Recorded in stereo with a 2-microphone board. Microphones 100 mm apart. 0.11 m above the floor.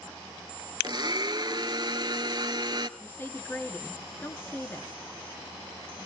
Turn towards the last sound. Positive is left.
turn(degrees=20)  # may be behind; listen again after turning